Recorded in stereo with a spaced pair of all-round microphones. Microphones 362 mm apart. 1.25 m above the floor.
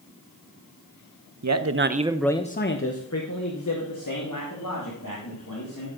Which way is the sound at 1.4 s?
50° right (ahead or behind).